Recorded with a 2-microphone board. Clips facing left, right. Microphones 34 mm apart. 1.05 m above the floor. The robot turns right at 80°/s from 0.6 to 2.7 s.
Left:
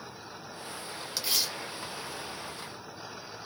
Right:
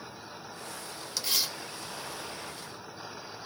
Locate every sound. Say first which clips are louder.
1.2 s tearing paper: even; 15° left (ahead or behind), 0.7 m; by 2.7 s 70° right (ahead or behind), 0.7 m